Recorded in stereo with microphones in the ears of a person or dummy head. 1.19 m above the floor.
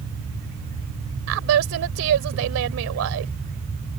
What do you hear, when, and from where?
1.3 s a woman speaking: 85° right